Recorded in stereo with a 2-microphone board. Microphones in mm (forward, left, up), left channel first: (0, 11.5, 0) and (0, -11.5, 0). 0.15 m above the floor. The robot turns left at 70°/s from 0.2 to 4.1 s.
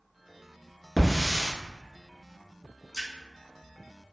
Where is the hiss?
10° left (ahead or behind), 1.1 m; by 1.5 s 25° right (ahead or behind), 1.1 m.